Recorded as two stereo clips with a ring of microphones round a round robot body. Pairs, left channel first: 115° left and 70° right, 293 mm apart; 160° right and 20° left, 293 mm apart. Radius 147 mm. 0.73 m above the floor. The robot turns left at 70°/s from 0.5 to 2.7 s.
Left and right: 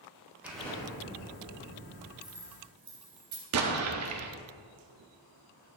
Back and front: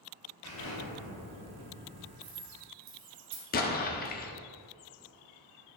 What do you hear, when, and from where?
0.4 s an explosion: 155° right, 4 m; by 2.1 s 95° left, 4 m
2.2 s keys jangling: 25° left, 2.5 m; by 3.4 s 10° right, 2.5 m
3.5 s an explosion: 100° right, 1.1 m